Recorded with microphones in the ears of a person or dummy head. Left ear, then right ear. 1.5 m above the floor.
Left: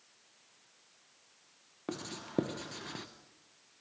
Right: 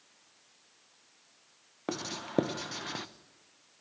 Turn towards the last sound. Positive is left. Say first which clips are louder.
# right 5 dB
turn(degrees=-20)  # may be behind; listen again after turning